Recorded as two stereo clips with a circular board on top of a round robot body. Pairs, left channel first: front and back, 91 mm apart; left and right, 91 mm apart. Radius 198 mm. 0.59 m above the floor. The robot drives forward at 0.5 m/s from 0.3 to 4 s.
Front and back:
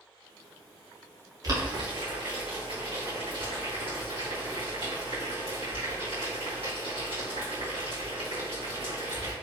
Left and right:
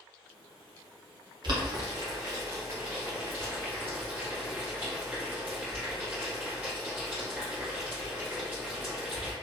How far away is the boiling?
About 0.9 m.